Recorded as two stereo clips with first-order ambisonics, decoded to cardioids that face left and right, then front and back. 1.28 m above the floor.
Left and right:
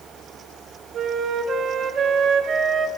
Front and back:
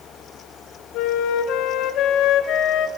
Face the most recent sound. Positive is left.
turn(degrees=-35)